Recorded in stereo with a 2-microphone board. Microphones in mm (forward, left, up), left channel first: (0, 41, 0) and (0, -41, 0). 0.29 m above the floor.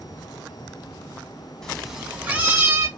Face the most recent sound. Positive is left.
turn(degrees=-35)  # may be behind; listen again after turning